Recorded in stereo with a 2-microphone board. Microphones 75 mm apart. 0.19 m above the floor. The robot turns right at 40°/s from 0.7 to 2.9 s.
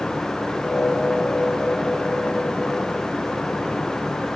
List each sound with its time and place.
Only background noise.